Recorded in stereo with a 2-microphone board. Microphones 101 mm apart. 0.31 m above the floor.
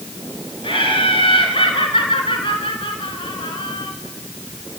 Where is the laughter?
60° left (ahead or behind), 3.5 m.